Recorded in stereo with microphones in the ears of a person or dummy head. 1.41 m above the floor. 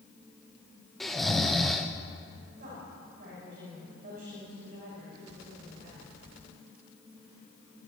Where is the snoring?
5° left (ahead or behind), 0.7 m.